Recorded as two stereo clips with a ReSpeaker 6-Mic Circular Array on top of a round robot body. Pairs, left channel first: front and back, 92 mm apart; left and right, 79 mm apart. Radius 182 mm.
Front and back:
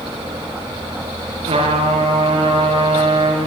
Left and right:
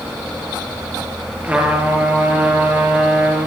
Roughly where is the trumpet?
Behind.